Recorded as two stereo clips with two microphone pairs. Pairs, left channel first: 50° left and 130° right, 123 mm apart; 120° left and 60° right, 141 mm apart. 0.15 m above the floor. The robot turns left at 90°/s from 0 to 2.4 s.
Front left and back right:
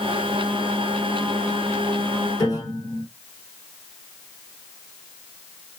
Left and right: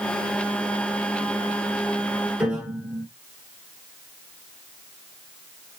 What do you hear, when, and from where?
2.4 s a piano: 20° left, 1.1 m